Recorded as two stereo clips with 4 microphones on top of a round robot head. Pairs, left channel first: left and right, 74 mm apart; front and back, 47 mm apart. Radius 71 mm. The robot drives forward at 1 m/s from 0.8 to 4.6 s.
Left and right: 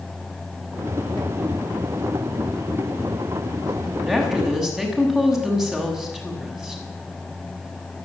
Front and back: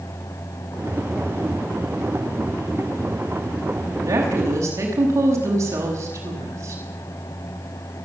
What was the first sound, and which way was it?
A woman speaking, 175° right.